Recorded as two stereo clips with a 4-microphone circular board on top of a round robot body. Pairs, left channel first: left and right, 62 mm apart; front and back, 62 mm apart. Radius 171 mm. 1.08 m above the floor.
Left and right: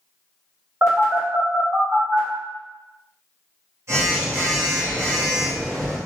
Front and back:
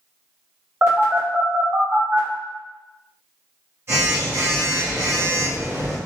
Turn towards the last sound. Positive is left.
turn(degrees=-130)